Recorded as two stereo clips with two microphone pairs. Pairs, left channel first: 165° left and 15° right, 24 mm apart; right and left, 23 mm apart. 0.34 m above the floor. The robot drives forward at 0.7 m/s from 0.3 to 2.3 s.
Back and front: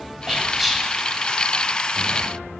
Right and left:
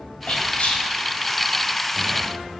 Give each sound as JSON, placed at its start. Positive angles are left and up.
{"t": 0.3, "sound": "whispering", "azimuth_deg": -85, "distance_m": 1.6}